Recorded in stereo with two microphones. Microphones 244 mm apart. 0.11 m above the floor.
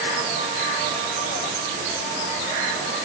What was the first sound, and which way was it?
Only background noise.